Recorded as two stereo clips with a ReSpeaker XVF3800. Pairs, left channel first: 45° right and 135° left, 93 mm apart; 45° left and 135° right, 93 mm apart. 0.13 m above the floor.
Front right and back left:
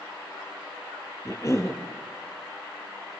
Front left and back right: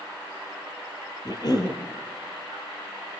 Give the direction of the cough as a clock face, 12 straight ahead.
12 o'clock.